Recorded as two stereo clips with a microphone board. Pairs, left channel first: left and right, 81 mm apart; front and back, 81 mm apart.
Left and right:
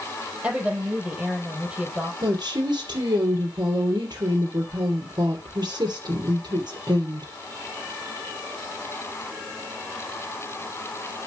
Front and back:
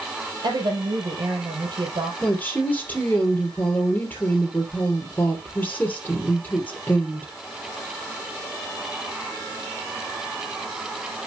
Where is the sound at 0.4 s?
165° right, 4.5 m.